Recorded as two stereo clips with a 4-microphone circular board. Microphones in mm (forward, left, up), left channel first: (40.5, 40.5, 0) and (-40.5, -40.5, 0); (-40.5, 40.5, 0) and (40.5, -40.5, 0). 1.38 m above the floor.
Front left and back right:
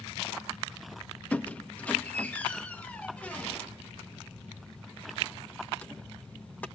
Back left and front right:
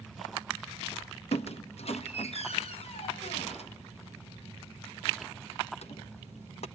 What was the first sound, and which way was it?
A squeak, 120° left.